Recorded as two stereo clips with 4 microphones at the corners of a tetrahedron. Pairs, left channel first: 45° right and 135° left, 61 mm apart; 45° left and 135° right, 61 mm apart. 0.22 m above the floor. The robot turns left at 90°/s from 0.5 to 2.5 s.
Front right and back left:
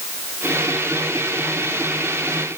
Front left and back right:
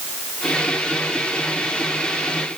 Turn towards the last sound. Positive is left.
No sound to turn to.